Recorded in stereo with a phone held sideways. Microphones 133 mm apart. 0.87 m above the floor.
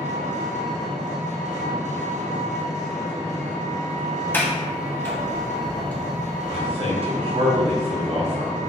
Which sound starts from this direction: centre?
A sliding door, at 4.3 s.